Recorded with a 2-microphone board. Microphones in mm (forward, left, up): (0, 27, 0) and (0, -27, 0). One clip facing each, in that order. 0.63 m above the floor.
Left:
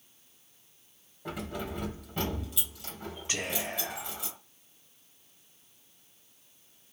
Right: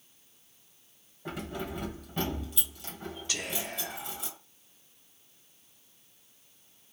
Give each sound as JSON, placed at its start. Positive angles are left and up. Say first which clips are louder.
{"t": 1.2, "sound": "keys jangling", "louder": "even", "side_deg": 5, "distance_m": 2.0}
{"t": 3.3, "sound": "whispering", "louder": "left 3 dB", "side_deg": 30, "distance_m": 0.9}